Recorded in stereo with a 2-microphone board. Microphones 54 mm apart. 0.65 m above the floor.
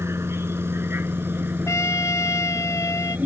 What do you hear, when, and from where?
0.0 s a vehicle: 50° right (ahead or behind); by 3.3 s 30° right (ahead or behind)
1.7 s a trumpet: 65° left (ahead or behind)